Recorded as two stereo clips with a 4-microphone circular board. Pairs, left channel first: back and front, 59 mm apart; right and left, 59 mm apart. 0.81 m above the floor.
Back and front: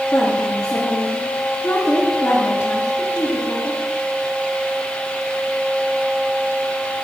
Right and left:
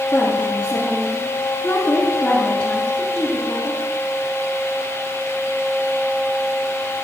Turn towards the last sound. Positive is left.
turn(degrees=-145)